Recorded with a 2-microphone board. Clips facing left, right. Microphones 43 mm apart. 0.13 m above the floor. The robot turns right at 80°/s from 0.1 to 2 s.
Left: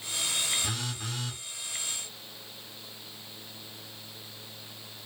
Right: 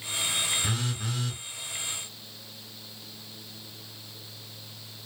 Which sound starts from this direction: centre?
A phone buzzing, at 0.6 s.